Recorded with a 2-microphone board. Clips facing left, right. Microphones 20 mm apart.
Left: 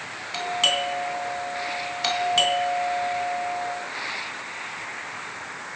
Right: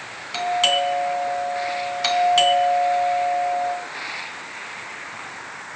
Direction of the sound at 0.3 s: 10° right (ahead or behind).